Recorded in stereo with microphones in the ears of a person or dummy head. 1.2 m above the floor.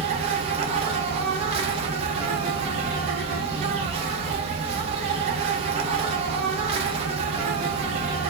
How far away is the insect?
About 0.8 m.